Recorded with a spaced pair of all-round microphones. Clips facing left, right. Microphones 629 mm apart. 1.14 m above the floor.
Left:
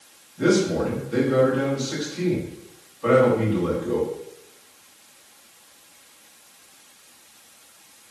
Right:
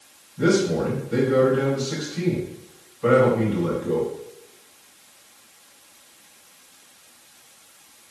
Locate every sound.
0.4 s a man speaking: 50° right (ahead or behind), 5.5 m